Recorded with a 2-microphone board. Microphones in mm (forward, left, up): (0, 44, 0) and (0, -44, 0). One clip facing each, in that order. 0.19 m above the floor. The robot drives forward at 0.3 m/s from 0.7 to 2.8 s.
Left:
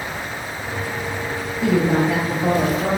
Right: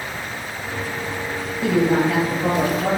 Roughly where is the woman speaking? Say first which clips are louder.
Even; centre.